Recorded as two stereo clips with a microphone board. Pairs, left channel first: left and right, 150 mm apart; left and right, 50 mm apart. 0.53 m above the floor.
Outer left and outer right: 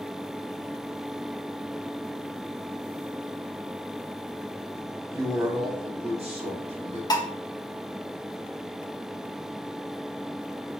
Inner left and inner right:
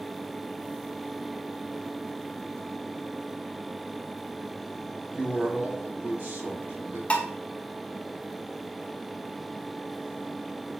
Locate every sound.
5.1 s a man speaking: 15° right (ahead or behind), 0.8 m; by 7.0 s 50° right (ahead or behind), 1.6 m
7.1 s dishes clattering: 25° left (ahead or behind), 0.7 m